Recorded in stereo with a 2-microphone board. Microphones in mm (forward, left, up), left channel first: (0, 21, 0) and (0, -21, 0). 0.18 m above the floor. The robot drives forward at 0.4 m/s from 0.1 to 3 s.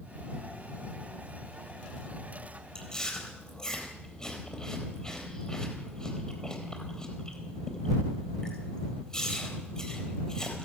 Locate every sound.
2.8 s chewing: 20° left (ahead or behind), 3.5 m